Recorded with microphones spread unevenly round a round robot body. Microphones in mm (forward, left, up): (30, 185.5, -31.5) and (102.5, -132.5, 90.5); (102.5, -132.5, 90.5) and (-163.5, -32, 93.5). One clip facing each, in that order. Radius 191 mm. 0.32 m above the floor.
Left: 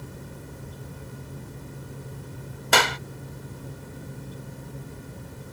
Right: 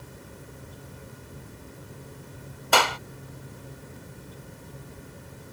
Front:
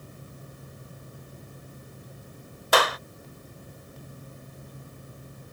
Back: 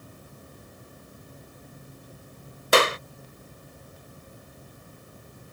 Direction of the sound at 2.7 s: 105° left.